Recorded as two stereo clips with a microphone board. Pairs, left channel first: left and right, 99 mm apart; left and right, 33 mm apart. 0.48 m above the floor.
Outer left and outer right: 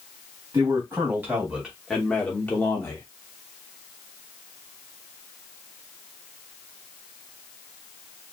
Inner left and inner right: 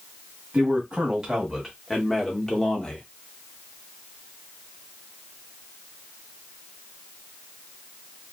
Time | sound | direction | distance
0.5 | a man speaking | 30° right (ahead or behind) | 1.3 m